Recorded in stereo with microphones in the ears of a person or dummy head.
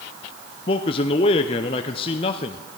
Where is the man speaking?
30° left (ahead or behind), 0.5 m.